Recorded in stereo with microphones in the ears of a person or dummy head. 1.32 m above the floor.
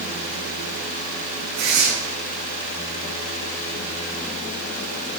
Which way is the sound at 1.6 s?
55° right (ahead or behind).